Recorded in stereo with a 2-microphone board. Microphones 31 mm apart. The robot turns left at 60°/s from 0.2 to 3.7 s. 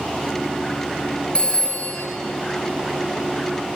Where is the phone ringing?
150° left, 1.5 m; by 2.0 s 105° left, 1.5 m.